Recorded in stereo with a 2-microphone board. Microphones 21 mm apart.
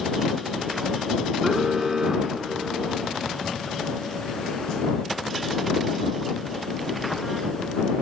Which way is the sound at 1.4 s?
15° right (ahead or behind).